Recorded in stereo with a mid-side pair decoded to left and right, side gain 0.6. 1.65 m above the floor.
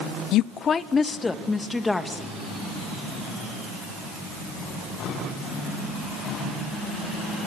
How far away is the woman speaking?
About 0.6 m.